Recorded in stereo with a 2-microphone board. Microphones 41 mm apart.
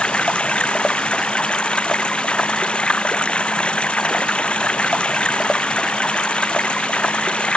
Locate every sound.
0.0 s running water: 25° left (ahead or behind)